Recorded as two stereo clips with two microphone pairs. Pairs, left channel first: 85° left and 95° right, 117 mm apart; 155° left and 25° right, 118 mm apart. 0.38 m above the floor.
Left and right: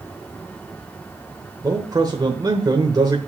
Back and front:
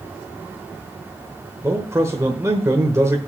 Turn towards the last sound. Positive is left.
turn(degrees=-65)